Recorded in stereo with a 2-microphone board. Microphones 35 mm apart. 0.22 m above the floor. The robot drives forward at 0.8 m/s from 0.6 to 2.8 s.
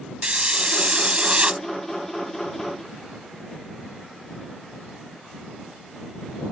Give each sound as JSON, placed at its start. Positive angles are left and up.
{"t": 0.2, "sound": "a hiss", "side_deg": -30}